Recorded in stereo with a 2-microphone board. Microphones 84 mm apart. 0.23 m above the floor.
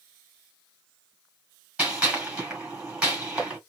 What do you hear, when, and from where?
1.8 s a gunshot: 10° right (ahead or behind), 1.9 m